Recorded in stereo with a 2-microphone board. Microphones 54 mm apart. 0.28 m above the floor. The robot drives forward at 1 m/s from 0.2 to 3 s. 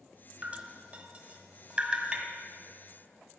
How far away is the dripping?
About 1.4 m.